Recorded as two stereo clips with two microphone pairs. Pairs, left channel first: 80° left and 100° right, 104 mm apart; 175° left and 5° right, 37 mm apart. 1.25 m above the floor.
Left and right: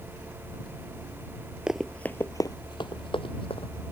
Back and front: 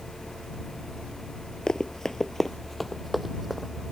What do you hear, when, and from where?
1.7 s running footsteps: 170° right; by 3.7 s 85° left